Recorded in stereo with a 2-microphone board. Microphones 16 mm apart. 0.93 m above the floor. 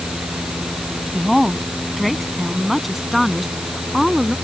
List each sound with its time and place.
1.1 s a woman speaking: 10° left (ahead or behind); by 4.3 s 5° right (ahead or behind)